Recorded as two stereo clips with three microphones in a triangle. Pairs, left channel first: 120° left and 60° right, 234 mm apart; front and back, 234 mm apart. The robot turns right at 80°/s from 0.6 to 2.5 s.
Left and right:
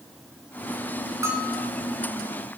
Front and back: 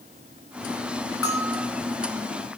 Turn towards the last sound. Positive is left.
turn(degrees=120)